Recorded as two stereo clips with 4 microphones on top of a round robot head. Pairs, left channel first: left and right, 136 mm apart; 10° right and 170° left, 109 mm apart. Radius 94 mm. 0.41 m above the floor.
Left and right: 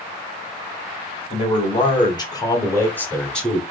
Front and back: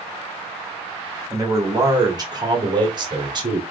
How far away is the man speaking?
About 1.6 m.